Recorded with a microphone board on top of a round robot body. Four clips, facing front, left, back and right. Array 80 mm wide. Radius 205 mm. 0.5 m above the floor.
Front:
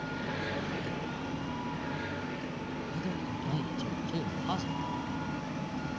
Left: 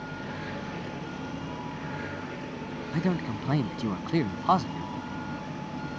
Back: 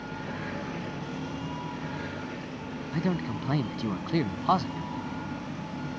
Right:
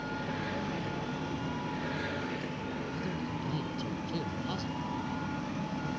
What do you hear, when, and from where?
2.9 s a man speaking: 120° left